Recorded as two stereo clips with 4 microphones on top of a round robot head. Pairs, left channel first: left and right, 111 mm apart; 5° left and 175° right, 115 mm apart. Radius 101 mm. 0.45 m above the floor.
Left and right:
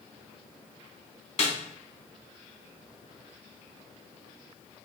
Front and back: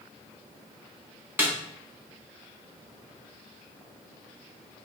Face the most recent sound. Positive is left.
turn(degrees=110)